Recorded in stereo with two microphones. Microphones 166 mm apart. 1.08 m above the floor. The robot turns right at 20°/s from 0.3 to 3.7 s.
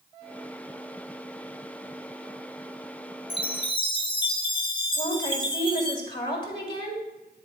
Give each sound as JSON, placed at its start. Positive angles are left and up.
{"t": 3.3, "sound": "a chime", "side_deg": 35, "distance_m": 0.8}
{"t": 5.0, "sound": "a woman speaking", "side_deg": 30, "distance_m": 2.5}